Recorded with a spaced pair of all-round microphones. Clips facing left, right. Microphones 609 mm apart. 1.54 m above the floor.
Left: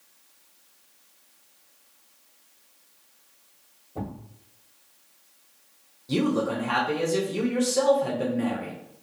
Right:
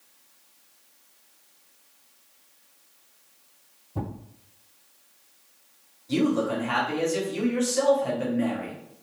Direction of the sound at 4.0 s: 20° right (ahead or behind).